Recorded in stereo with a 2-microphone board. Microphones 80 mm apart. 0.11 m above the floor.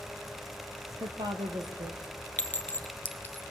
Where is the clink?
20° left (ahead or behind), 0.9 m.